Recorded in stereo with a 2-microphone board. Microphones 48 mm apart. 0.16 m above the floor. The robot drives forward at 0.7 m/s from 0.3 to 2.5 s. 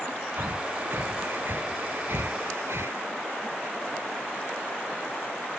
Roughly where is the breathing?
Right.